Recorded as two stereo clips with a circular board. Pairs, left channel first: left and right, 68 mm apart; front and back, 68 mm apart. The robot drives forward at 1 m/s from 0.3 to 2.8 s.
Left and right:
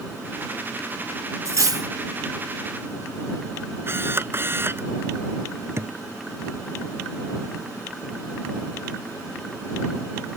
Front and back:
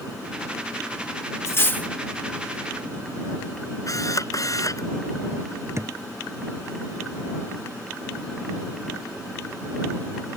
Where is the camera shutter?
35° right.